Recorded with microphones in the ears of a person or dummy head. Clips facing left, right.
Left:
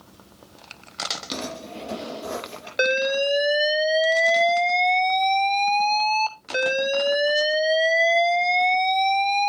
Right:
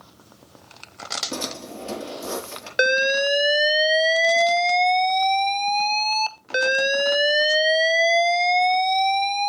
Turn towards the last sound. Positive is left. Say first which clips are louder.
# even
turn(degrees=-10)  # may be behind; listen again after turning